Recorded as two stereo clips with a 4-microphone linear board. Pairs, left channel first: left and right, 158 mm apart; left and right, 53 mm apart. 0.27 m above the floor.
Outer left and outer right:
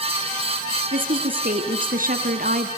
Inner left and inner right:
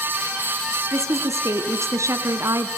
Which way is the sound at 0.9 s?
65° right (ahead or behind).